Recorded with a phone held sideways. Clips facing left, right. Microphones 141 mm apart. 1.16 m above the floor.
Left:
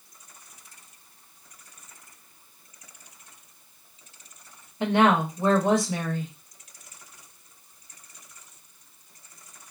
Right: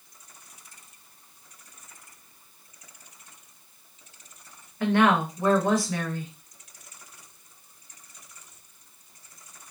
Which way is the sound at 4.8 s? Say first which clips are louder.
Left 1 dB; 20° left (ahead or behind).